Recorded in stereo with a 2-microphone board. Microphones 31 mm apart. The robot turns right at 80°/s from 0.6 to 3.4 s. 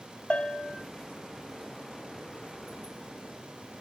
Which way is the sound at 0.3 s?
40° left (ahead or behind).